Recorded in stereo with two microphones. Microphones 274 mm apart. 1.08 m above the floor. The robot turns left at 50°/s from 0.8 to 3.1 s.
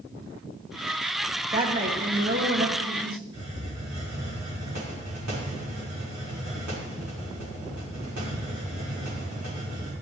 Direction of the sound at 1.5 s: 20° right.